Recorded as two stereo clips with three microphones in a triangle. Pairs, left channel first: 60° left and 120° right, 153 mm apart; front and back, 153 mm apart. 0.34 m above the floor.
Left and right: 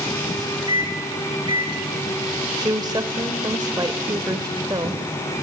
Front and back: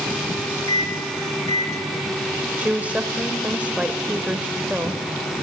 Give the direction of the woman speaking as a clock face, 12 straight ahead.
4 o'clock.